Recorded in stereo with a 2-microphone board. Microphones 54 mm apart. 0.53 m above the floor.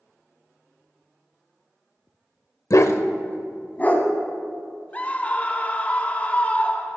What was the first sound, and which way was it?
A dog barking, 60° left (ahead or behind).